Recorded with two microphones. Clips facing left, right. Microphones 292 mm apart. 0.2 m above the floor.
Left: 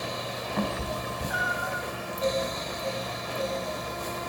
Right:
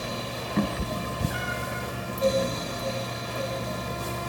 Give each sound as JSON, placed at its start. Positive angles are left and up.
{"t": 0.6, "sound": "a cat meowing", "side_deg": -35, "distance_m": 0.8}